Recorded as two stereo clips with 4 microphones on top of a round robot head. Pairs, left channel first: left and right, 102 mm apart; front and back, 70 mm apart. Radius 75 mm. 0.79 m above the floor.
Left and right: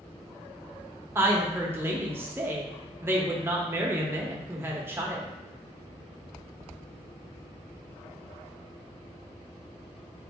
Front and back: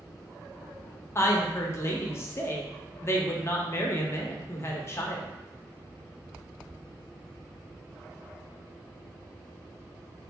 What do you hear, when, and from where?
1.1 s a woman speaking: 30° right, 0.8 m